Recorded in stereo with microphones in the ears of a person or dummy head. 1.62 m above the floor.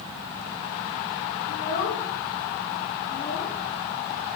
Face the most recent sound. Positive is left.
turn(degrees=40)  # may be behind; listen again after turning